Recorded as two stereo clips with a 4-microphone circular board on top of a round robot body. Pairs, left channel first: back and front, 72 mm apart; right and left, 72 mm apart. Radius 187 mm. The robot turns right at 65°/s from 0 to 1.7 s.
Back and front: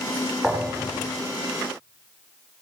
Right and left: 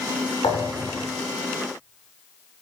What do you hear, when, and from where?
0.4 s a thud: 80° right, 9.5 m; by 1.0 s 45° right, 9.5 m